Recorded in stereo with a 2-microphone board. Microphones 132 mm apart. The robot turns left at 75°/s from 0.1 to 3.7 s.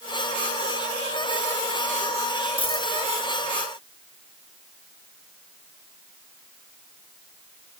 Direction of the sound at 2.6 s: 40° left (ahead or behind).